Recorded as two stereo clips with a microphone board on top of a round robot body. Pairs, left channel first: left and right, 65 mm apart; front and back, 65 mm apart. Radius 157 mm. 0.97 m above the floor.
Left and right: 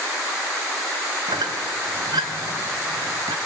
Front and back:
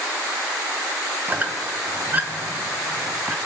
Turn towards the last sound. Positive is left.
turn(degrees=-115)